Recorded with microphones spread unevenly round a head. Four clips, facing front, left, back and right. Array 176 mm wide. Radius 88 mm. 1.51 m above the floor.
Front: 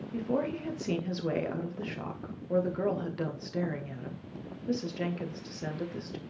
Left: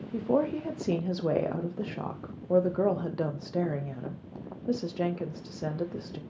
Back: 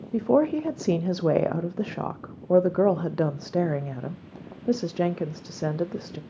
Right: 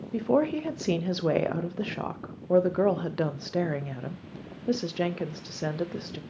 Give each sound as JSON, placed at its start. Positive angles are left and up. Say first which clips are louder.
{"t": 0.1, "sound": "a woman speaking", "louder": "right 2 dB, back 10 dB", "azimuth_deg": -170, "distance_m": 0.6}